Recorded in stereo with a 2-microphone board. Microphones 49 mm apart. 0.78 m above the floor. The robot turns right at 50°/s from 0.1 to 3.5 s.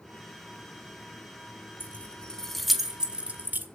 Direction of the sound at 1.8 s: 40° left (ahead or behind).